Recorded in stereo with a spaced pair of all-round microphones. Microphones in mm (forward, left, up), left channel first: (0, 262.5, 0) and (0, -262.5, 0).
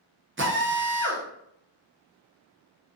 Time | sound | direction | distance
0.4 | a drill | 25° right (ahead or behind) | 0.5 m